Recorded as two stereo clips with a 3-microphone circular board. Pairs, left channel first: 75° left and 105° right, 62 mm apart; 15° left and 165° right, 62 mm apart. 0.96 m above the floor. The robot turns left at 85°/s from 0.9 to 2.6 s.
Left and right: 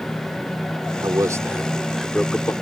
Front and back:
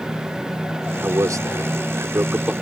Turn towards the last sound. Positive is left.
turn(degrees=110)